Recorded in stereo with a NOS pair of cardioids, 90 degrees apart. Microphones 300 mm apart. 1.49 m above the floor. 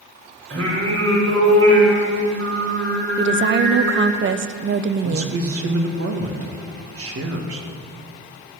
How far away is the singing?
About 4 m.